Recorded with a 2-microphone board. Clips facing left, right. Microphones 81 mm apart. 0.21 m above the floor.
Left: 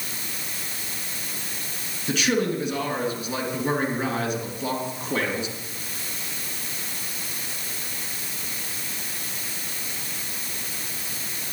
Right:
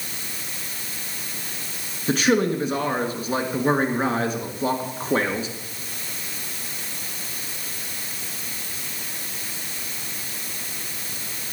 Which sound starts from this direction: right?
A man speaking, at 2.1 s.